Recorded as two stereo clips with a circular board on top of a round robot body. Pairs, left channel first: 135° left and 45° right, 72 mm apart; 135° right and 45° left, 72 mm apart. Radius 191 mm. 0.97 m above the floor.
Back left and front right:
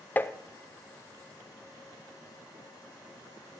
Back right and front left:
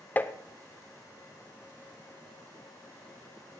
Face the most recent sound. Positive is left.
turn(degrees=175)